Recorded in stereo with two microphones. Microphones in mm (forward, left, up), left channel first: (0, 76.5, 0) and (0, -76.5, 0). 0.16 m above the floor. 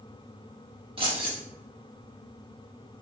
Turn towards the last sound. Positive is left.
turn(degrees=-40)  # may be behind; listen again after turning